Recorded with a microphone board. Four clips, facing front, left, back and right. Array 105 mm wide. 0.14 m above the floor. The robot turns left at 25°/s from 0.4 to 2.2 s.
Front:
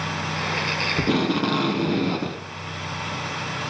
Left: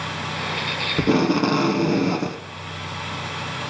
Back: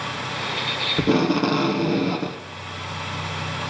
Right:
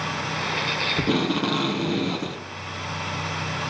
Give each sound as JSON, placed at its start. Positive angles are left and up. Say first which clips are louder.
{"t": 1.0, "sound": "tape being pulled", "louder": "left 6 dB, back 3 dB", "azimuth_deg": 125, "distance_m": 0.6}